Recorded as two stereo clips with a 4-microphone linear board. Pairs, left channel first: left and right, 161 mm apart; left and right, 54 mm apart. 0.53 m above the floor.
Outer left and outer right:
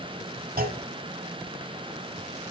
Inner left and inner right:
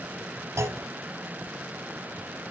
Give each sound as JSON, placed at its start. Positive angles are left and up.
{"t": 0.6, "sound": "a clunk", "side_deg": -65, "distance_m": 0.8}